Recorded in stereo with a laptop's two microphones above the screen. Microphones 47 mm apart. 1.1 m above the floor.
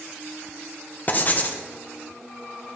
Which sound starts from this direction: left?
Writing, at 1.1 s.